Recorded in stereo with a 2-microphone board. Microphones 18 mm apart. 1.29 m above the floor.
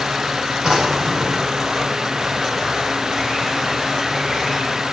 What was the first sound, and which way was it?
A drawer, 80° right.